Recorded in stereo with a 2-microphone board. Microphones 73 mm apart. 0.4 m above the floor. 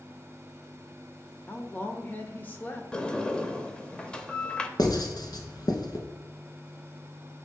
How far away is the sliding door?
About 0.5 m.